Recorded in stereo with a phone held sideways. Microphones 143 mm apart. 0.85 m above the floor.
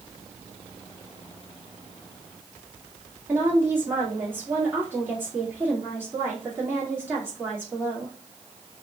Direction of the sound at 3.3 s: 15° right (ahead or behind).